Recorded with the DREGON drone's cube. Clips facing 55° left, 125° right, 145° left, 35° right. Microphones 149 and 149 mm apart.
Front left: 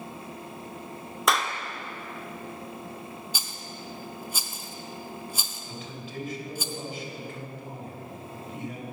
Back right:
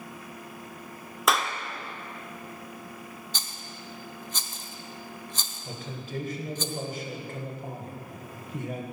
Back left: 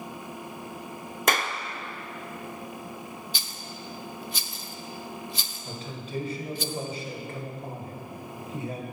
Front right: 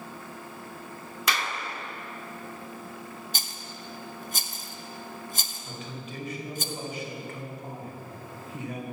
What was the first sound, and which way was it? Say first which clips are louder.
A clap: even, back left 4 dB; 150° left.